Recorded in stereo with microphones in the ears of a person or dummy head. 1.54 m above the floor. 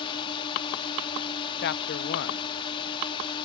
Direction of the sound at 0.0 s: 30° left (ahead or behind).